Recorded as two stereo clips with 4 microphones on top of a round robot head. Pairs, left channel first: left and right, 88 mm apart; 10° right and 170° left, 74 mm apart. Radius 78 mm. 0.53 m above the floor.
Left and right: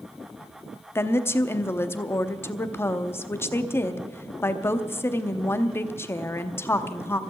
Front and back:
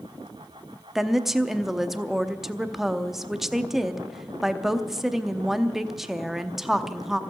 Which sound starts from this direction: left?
A woman speaking, at 0.9 s.